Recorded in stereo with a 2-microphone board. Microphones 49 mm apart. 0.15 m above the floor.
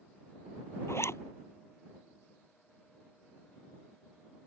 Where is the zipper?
70° left (ahead or behind).